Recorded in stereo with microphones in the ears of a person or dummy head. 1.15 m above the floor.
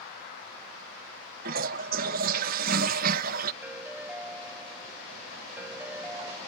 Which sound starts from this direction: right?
A toilet flushing, at 1.4 s.